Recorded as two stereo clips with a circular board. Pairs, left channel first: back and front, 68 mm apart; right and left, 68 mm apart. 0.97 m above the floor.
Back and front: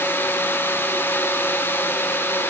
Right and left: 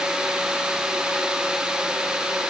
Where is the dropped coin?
I don't hear a dropped coin.